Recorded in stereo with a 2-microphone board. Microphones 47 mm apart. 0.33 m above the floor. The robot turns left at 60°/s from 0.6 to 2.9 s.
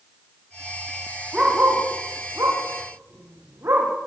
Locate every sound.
1.3 s a dog barking: 20° right (ahead or behind), 8.5 m; by 3.9 s 65° right (ahead or behind), 8.5 m